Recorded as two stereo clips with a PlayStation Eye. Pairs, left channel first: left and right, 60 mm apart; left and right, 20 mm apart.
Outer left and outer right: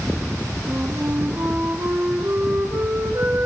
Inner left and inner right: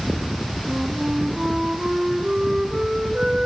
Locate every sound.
0.7 s a flute: 55° right (ahead or behind), 2.5 m